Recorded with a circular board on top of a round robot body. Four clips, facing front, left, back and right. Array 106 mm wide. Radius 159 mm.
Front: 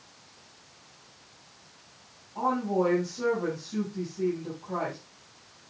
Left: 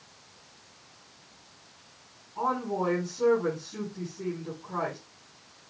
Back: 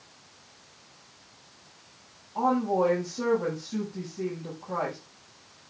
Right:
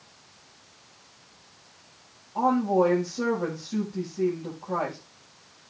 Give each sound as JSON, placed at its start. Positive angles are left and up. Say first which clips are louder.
{"t": 2.4, "sound": "a woman speaking", "louder": "right 7 dB, back 2 dB", "azimuth_deg": -105, "distance_m": 6.5}